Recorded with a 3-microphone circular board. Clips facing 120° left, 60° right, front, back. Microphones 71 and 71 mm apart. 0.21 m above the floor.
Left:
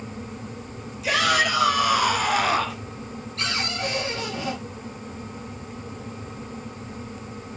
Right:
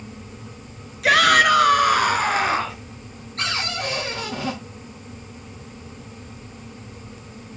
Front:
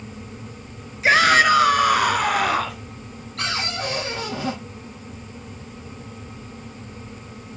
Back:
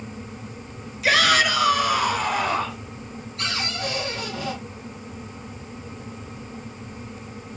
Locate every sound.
1.0 s a shout: 60° right, 2.5 m; by 2.8 s 5° left, 3 m
3.4 s a cupboard door: 10° right, 6 m